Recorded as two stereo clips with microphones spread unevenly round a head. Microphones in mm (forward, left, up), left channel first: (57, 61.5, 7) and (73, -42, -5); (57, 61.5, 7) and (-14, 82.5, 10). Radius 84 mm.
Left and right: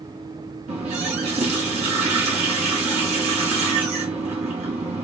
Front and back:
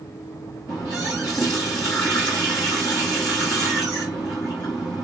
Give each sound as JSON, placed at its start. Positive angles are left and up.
{"t": 0.7, "sound": "a running tap", "azimuth_deg": -90, "distance_m": 2.0}